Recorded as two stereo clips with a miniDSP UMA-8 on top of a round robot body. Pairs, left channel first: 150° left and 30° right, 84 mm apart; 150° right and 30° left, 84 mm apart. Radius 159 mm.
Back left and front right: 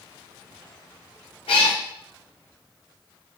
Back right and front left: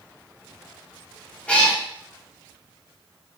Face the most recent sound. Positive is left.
turn(degrees=135)